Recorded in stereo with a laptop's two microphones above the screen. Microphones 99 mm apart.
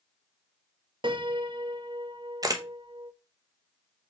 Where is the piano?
55° right (ahead or behind), 1.1 m.